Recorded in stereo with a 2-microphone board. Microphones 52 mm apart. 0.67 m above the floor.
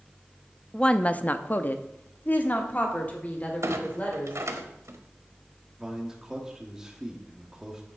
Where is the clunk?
65° right (ahead or behind), 1.0 m.